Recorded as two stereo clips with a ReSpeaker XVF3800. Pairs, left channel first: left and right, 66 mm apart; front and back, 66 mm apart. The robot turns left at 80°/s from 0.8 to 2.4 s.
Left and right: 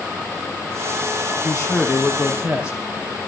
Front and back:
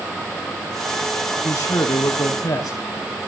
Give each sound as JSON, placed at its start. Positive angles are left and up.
{"t": 1.4, "sound": "a man speaking", "azimuth_deg": 60, "distance_m": 5.0}